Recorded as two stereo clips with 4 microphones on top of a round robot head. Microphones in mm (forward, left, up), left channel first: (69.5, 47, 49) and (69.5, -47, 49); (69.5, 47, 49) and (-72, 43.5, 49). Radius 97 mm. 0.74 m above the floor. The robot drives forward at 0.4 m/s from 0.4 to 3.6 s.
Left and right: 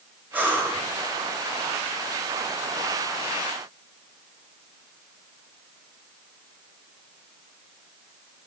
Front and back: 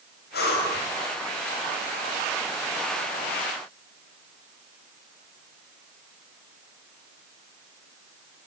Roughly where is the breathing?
Ahead.